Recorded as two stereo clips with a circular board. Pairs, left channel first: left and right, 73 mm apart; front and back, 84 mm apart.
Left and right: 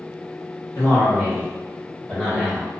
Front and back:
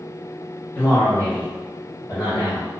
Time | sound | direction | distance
0.8 | a man speaking | 55° left | 1.1 m